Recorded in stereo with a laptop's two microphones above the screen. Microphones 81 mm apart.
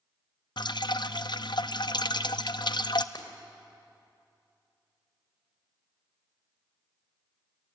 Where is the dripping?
65° left (ahead or behind), 0.5 m.